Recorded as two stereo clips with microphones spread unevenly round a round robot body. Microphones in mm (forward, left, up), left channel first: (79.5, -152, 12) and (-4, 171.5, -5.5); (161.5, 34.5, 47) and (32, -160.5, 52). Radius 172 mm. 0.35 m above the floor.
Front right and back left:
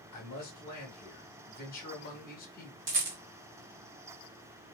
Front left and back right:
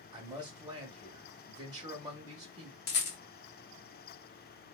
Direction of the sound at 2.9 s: 65° left.